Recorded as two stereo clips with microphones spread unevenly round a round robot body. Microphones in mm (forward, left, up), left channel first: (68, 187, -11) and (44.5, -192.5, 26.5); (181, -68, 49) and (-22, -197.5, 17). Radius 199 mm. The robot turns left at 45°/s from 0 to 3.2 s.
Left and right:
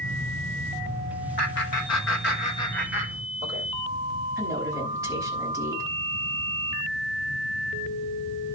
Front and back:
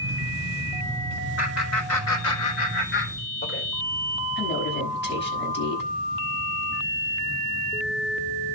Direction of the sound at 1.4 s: 65° left.